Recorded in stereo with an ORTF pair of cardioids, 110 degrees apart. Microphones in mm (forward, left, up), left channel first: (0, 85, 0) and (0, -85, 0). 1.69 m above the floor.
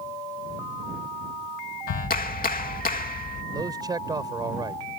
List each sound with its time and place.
1.9 s a clap: 60° left
3.5 s a man speaking: 25° right